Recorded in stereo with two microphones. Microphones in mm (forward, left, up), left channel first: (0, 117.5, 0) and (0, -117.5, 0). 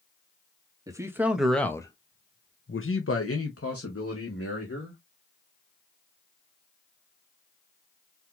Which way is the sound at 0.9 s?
15° right (ahead or behind).